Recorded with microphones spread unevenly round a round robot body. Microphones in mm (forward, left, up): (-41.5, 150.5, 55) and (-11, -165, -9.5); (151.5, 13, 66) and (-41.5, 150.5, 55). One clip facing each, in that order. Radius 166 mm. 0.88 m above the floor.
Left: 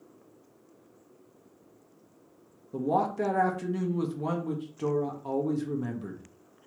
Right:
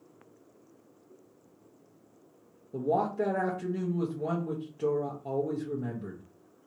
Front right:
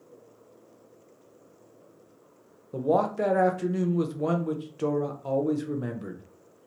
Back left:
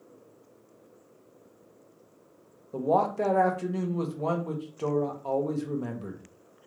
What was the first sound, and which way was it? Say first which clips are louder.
A man speaking: even, front right 1 dB; 20° left.